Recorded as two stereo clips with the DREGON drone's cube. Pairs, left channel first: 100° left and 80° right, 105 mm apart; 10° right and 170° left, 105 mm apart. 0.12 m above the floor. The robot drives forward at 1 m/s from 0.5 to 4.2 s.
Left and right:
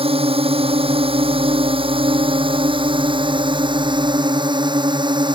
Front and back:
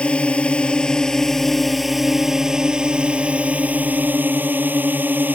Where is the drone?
90° right; by 5.3 s 120° right.